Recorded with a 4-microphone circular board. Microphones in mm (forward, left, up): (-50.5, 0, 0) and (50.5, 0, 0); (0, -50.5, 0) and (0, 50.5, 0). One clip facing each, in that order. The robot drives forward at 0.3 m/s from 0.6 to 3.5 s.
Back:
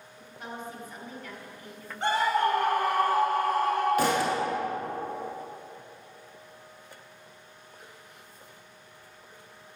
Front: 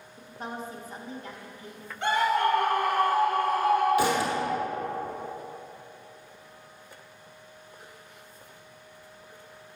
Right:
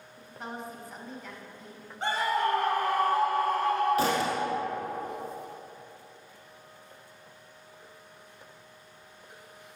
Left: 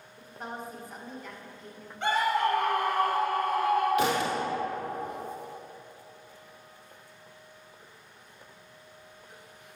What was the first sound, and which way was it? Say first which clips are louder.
A woman speaking: front 3 dB, even; straight ahead.